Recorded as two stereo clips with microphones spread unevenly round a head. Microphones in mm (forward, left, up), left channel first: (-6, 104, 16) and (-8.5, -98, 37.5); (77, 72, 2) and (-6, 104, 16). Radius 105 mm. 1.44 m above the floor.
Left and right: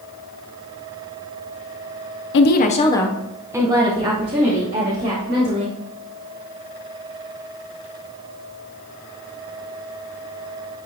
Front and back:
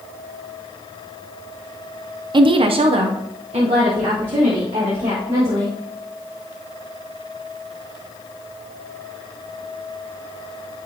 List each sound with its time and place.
2.3 s a woman speaking: 125° left, 0.6 m; by 5.8 s 140° right, 2 m